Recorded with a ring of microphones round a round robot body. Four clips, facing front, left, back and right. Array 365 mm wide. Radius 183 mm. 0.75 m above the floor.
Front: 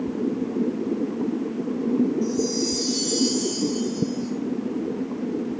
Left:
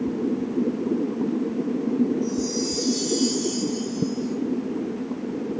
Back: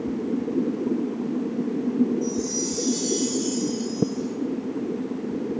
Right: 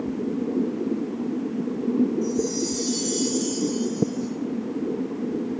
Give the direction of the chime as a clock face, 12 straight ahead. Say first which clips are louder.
Even, front 3 dB; 3 o'clock.